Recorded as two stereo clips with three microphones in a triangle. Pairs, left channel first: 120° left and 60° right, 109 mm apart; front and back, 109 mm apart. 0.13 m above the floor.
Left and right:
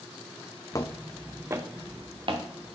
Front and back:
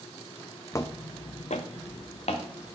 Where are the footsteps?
65° left, 0.6 m; by 2.8 s 25° right, 1.5 m.